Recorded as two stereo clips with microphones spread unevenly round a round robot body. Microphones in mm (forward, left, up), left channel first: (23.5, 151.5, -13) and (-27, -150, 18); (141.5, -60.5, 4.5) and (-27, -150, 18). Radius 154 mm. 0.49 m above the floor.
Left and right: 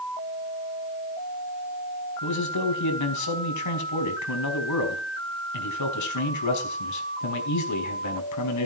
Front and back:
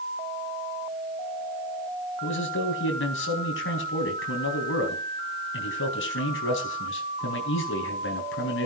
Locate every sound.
2.2 s a man speaking: 50° left, 4.5 m